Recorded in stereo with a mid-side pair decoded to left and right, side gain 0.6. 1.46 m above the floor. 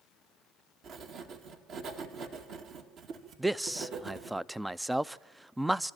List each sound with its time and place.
0.8 s writing: 50° right, 2 m
3.4 s a man speaking: 5° right, 0.5 m